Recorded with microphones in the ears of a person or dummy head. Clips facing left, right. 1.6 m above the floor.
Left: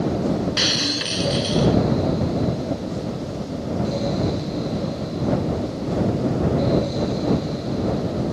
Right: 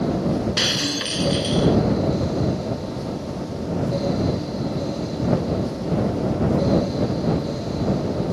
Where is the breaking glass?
5° left (ahead or behind).